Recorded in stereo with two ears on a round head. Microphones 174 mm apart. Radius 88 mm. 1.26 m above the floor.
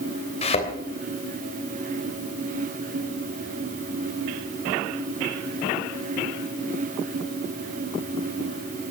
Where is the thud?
35° left (ahead or behind), 3 m.